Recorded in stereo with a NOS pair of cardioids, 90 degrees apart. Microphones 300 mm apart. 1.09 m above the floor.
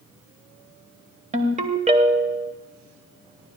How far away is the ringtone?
About 1.9 m.